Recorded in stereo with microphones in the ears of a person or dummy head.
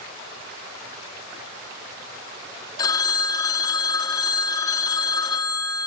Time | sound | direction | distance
2.8 | a phone ringing | 20° left (ahead or behind) | 1.6 m